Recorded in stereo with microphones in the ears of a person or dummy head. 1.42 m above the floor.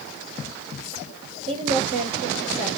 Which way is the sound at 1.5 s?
40° right (ahead or behind).